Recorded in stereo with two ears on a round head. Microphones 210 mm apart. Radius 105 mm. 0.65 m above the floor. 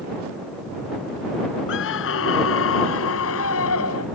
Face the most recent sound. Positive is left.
turn(degrees=70)  # may be behind; listen again after turning